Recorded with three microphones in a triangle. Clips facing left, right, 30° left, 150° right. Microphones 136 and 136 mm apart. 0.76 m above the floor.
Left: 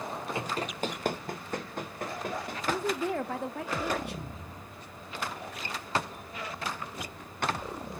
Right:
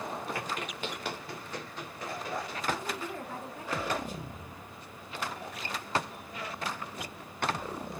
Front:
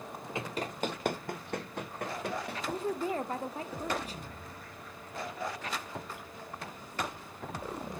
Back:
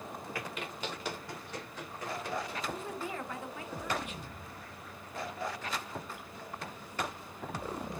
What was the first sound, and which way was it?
Running footsteps, 60° left.